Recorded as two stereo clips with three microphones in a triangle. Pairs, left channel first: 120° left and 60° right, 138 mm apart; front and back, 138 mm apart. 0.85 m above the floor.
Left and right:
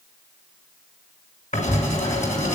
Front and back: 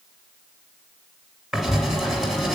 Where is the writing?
95° left, 3.5 m.